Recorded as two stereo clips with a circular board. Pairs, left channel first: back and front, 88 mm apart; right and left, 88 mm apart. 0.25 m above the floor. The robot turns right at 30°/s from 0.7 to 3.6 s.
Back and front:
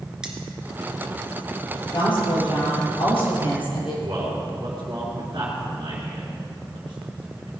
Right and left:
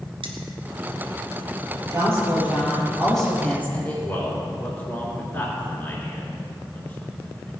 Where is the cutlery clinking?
80° left, 2.0 m.